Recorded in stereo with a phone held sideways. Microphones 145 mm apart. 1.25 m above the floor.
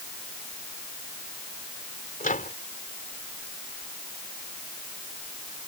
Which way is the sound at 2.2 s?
80° left.